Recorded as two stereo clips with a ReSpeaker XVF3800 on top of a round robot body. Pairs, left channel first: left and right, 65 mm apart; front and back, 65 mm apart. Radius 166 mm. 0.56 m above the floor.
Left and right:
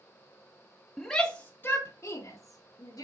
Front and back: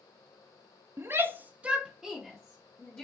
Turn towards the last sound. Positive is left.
turn(degrees=70)